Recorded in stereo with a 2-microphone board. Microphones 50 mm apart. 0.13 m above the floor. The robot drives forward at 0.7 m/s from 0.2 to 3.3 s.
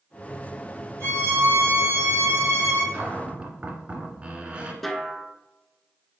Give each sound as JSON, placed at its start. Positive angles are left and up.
{"t": 1.0, "sound": "a violin", "side_deg": -50, "distance_m": 3.0}
{"t": 2.9, "sound": "a cupboard door", "side_deg": -25, "distance_m": 1.8}
{"t": 4.8, "sound": "a snare drum", "side_deg": 5, "distance_m": 0.8}